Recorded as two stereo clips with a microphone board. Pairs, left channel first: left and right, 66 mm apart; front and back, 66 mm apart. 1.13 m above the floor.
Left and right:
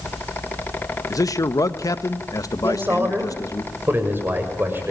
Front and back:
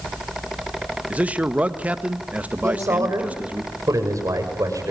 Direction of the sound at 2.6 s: 150° right.